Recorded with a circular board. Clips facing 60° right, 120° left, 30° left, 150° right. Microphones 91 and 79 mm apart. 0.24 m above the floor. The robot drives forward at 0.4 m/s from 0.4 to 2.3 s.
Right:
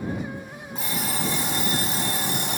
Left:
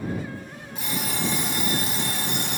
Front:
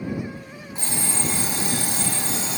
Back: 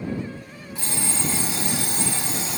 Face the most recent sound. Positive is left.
turn(degrees=-85)